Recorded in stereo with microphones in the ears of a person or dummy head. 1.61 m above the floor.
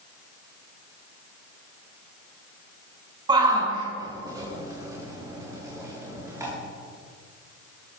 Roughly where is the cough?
I don't hear a cough.